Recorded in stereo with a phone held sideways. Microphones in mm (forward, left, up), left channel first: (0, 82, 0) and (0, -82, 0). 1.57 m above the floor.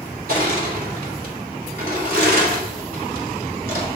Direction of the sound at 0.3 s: 70° right (ahead or behind).